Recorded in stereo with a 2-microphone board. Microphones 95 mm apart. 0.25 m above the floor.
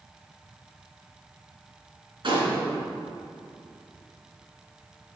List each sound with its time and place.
2.2 s a gunshot: 60° right (ahead or behind), 2.5 m